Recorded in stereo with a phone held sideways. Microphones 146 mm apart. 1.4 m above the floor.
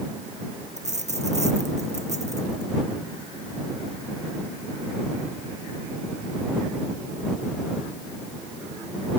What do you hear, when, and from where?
0.8 s a dropped coin: 55° right (ahead or behind)